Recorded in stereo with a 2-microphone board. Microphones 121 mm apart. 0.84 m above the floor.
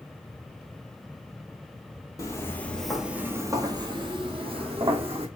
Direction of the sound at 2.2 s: 30° left (ahead or behind).